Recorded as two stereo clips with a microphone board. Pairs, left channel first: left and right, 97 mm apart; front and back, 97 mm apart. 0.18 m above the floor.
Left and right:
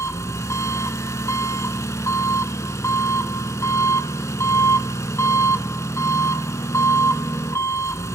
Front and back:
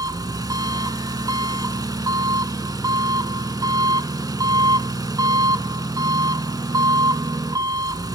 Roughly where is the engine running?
Behind left.